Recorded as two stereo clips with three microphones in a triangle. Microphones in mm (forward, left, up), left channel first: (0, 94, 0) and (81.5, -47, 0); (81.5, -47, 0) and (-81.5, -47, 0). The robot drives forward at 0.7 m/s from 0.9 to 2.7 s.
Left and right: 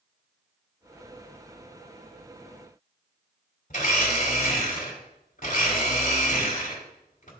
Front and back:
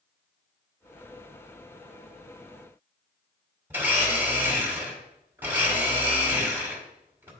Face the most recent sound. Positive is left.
turn(degrees=105)